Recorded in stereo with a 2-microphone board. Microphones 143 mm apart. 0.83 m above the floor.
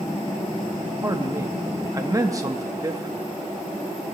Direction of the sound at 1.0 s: 25° right (ahead or behind).